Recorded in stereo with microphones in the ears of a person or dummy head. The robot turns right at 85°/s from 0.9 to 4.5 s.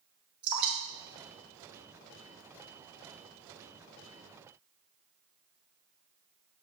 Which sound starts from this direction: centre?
Dripping, at 0.4 s.